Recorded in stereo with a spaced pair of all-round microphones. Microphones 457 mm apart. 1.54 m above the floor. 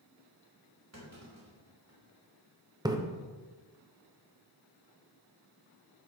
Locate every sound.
0.9 s a clunk: 35° right (ahead or behind), 3 m
2.9 s a splash: 10° right (ahead or behind), 0.8 m